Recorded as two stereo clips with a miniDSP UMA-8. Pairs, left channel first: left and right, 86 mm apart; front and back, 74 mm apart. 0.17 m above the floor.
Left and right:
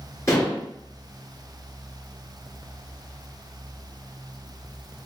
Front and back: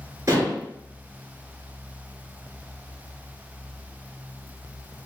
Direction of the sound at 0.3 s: 140° left.